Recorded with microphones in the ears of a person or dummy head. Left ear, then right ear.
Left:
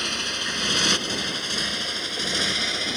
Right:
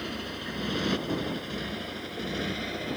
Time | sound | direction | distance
0.0 | a motorcycle | 65° left (ahead or behind) | ?